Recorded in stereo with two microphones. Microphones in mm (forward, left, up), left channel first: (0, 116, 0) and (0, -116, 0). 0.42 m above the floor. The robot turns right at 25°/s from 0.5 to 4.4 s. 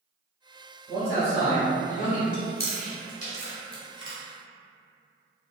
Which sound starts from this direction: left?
Chewing, at 2.3 s.